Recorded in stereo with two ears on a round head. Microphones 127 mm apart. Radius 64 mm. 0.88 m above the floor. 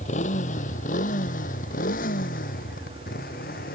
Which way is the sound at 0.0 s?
50° left (ahead or behind).